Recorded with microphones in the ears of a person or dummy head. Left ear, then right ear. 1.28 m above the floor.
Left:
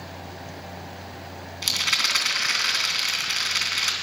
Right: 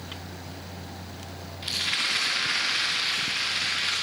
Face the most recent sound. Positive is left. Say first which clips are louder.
# left 4 dB
turn(degrees=70)  # may be behind; listen again after turning